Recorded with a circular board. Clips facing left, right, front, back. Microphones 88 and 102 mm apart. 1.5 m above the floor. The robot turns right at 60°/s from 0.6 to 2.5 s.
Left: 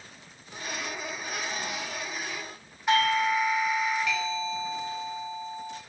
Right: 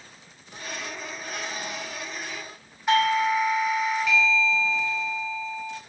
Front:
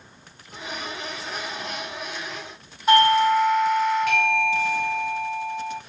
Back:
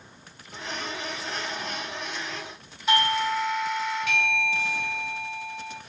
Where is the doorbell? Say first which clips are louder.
Right 3 dB, front 8 dB; straight ahead, 0.6 m.